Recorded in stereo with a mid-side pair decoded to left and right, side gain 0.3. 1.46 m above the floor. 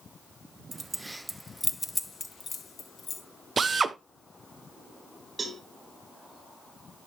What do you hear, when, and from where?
0.7 s keys jangling: 30° right, 1.0 m; by 3.2 s 75° left, 1.5 m
3.6 s a drill: 55° right, 0.8 m
5.4 s a cowbell: 45° right, 2 m